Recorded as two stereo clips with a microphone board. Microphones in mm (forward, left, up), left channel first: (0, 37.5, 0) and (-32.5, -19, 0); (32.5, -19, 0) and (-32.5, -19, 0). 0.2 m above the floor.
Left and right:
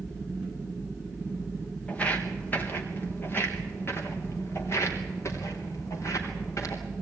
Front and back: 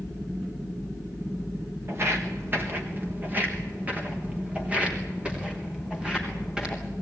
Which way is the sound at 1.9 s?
130° left.